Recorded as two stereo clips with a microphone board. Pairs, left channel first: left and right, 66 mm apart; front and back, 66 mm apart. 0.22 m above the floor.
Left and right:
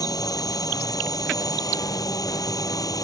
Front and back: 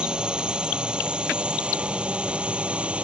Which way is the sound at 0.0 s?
105° left.